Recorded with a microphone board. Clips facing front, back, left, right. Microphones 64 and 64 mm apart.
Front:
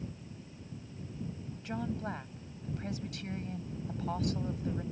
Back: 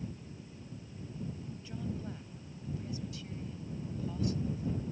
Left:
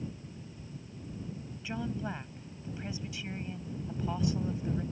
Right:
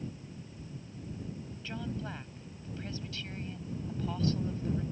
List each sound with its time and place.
1.6 s a woman speaking: 15° left